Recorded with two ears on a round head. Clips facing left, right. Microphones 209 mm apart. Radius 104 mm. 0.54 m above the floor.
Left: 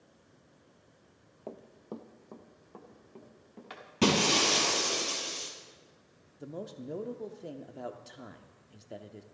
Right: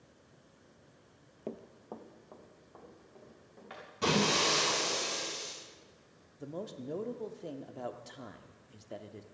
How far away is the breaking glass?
About 3.5 m.